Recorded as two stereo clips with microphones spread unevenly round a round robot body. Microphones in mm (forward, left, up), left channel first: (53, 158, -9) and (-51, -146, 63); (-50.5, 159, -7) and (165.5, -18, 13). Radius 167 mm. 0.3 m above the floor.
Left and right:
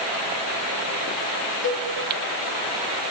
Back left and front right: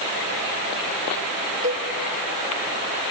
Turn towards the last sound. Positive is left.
turn(degrees=20)